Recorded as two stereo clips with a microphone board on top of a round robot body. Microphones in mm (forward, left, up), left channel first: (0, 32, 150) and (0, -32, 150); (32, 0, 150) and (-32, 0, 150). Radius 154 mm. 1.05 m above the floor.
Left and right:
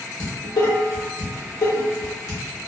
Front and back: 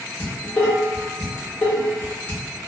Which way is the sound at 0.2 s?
65° left.